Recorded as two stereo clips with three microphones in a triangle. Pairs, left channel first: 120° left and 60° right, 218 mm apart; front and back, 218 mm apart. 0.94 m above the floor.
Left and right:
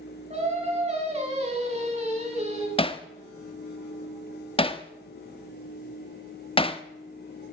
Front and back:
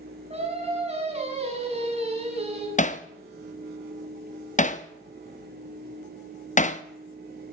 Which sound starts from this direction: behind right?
Singing, at 0.3 s.